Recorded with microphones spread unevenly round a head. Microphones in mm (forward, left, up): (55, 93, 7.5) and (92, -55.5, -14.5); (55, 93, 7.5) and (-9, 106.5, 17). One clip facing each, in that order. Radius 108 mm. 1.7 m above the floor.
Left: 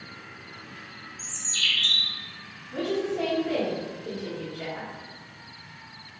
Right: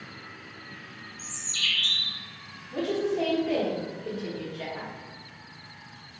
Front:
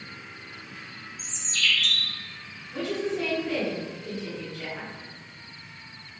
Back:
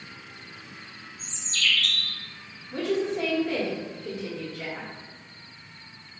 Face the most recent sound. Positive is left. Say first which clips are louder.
# even, back 2 dB
turn(degrees=-145)